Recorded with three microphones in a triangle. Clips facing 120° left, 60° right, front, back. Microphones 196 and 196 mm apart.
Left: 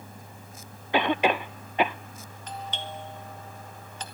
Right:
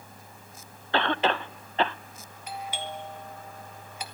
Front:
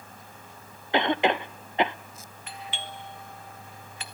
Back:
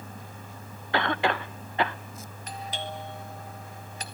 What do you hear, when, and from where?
0.9 s a cough: 50° left, 0.5 m
2.5 s a doorbell: 140° right, 1.7 m